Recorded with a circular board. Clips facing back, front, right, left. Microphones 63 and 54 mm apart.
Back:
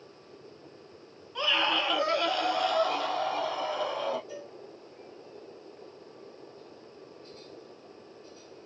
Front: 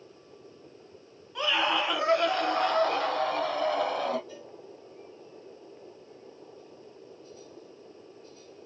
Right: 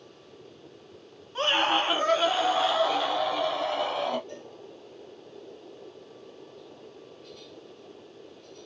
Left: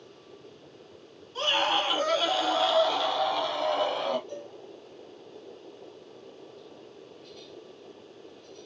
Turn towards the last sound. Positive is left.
turn(degrees=-110)